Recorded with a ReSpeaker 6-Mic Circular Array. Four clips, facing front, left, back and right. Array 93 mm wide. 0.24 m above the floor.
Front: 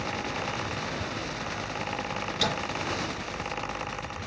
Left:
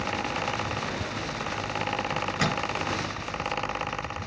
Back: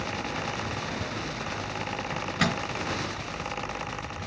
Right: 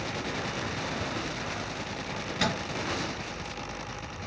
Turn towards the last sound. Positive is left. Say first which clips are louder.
# left 3 dB, back 4 dB
turn(degrees=170)